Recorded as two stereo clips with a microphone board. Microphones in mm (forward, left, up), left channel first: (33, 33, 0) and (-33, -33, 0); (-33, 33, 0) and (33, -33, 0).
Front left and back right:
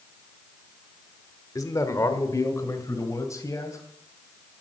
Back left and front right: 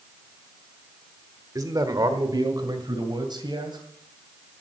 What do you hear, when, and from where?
1.6 s a man speaking: straight ahead, 1.3 m; by 3.8 s 10° right, 3 m